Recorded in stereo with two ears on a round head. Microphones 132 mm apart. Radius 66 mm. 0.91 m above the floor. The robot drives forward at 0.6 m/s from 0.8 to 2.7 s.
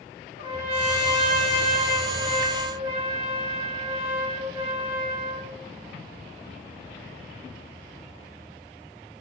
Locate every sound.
0.4 s a trumpet: 45° right (ahead or behind), 1.2 m; by 5.5 s 40° right (ahead or behind), 1.3 m